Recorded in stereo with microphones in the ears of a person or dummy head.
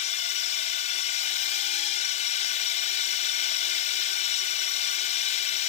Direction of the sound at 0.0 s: 35° left (ahead or behind).